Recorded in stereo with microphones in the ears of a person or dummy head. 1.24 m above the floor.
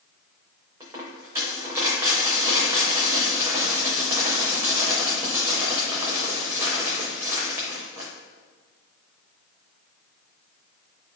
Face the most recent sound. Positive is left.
turn(degrees=-15)  # may be behind; listen again after turning